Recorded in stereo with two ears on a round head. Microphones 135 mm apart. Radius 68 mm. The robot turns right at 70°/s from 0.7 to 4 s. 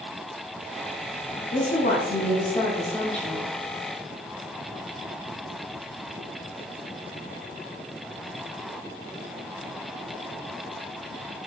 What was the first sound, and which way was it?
A woman speaking, 55° left.